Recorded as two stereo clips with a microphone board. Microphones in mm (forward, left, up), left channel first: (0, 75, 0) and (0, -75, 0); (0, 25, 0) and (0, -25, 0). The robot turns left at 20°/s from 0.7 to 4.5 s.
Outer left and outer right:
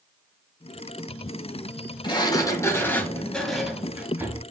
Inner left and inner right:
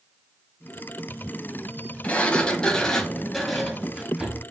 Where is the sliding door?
30° left, 1.6 m; by 4.4 s 15° right, 1.6 m.